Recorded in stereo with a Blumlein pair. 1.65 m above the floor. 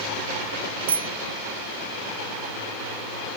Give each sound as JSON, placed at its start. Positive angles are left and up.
{"t": 0.9, "sound": "a bicycle bell", "azimuth_deg": -70}